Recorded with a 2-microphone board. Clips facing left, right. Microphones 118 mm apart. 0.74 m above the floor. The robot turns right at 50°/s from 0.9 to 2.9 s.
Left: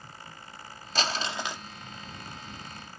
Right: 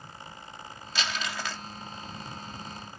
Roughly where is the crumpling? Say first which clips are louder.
Left 3 dB; behind left.